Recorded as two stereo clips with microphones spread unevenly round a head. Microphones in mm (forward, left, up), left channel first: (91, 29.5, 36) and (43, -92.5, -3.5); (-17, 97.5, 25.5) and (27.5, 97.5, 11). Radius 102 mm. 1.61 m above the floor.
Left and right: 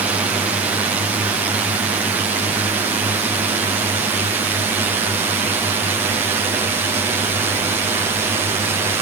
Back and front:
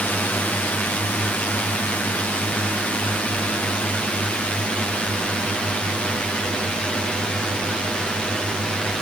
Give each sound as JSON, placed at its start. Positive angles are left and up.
{"t": 0.0, "sound": "a drone", "azimuth_deg": -130}